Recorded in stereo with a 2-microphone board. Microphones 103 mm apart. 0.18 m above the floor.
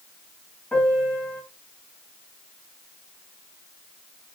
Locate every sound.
0.7 s a piano: 10° left (ahead or behind), 1.5 m